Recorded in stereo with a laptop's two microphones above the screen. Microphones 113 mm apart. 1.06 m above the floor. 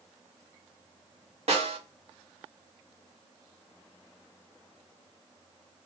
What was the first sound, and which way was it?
A snare drum, 70° right (ahead or behind).